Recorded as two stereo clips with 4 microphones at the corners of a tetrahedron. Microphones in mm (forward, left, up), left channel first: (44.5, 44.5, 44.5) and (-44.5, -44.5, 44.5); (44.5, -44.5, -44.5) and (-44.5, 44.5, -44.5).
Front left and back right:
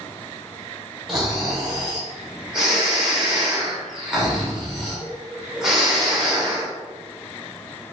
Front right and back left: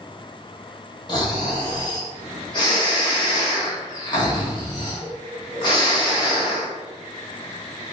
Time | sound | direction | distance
1.1 | snoring | 50° right | 1.2 m